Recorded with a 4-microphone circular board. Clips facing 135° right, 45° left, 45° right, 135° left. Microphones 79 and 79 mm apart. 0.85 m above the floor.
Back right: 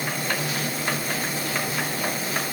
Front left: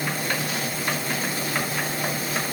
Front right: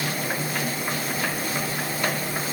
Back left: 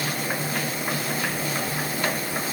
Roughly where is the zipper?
No zipper in this recording.